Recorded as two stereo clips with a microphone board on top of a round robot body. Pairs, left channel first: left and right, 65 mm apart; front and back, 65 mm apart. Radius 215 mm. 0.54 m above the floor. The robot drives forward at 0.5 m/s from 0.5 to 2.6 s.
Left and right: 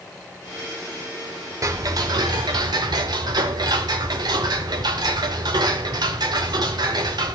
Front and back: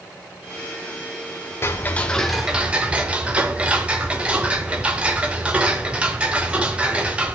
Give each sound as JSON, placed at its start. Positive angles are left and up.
{"t": 1.6, "sound": "ticking", "azimuth_deg": -50, "distance_m": 0.6}